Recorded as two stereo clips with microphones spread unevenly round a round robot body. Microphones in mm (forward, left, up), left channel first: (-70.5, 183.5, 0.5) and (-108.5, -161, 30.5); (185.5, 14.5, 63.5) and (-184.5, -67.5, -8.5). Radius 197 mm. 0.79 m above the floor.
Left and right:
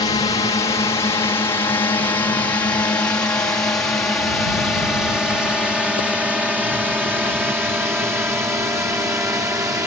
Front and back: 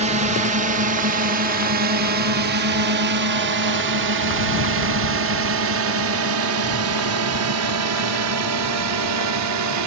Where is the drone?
150° left; by 9.9 s straight behind.